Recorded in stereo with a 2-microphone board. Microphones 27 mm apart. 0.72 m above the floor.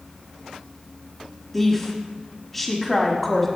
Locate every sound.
1.5 s a woman speaking: 5° left (ahead or behind), 1.3 m